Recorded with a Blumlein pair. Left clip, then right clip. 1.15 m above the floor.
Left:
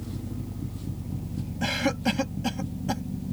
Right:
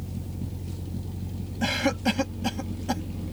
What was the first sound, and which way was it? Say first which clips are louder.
A cough: right 1 dB; straight ahead.